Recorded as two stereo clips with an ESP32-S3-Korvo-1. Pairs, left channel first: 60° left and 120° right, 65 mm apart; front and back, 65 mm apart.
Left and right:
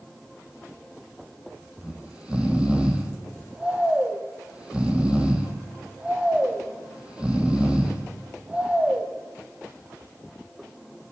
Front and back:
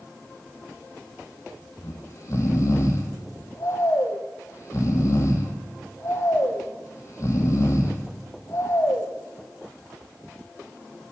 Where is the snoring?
45° right, 1.1 m.